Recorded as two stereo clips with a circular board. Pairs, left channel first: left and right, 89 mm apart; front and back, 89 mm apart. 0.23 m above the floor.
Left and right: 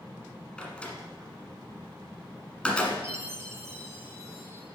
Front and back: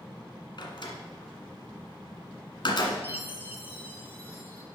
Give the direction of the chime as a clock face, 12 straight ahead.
2 o'clock.